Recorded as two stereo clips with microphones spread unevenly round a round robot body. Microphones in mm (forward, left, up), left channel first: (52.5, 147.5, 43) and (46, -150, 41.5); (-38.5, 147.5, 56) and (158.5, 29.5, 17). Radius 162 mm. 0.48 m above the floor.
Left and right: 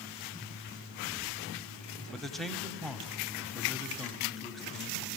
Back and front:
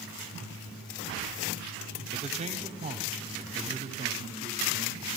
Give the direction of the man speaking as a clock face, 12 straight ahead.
12 o'clock.